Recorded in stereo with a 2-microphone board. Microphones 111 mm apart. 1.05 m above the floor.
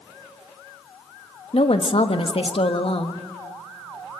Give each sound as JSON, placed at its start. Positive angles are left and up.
{"t": 1.5, "sound": "a woman speaking", "side_deg": 60, "distance_m": 1.4}